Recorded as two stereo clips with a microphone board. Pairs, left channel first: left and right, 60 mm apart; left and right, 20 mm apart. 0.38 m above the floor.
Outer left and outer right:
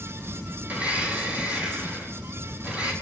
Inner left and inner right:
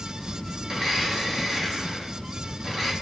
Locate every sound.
0.7 s a blender: 25° right (ahead or behind), 5.5 m